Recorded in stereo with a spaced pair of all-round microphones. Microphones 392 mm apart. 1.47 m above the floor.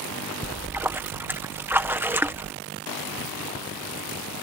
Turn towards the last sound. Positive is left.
turn(degrees=-5)  # may be behind; listen again after turning